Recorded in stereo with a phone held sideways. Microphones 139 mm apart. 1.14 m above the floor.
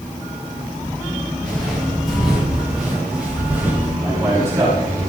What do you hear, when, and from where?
1.4 s footsteps: 5° left (ahead or behind), 8 m; by 3.9 s 10° right (ahead or behind), 7 m
4.0 s a man speaking: 20° right (ahead or behind), 7 m